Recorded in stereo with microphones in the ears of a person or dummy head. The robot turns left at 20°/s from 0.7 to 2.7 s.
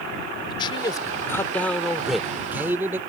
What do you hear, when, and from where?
0.5 s a man speaking: 30° left; by 3.0 s 10° right